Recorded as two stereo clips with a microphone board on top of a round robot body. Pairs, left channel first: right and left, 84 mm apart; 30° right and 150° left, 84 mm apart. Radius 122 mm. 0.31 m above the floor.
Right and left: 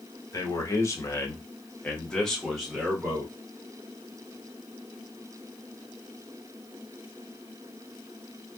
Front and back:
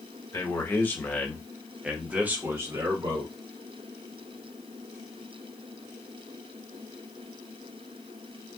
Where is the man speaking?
70° right, 1.3 m; by 3.3 s 160° left, 1.3 m.